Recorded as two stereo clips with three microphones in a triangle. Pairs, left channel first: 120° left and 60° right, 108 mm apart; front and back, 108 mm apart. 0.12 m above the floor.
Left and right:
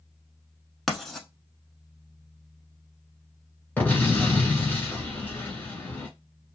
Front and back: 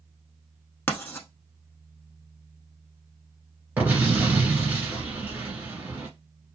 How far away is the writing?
About 0.8 m.